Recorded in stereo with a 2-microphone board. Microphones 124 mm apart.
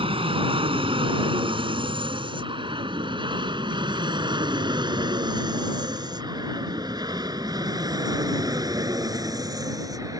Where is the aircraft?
45° right (ahead or behind); by 10.2 s 25° right (ahead or behind).